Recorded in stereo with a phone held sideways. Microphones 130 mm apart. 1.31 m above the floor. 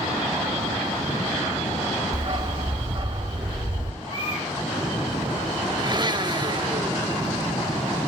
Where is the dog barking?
40° right (ahead or behind), 1.0 m.